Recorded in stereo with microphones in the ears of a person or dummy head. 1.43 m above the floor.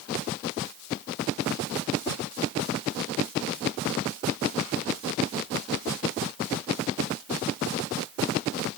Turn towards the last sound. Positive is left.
No sound to turn to.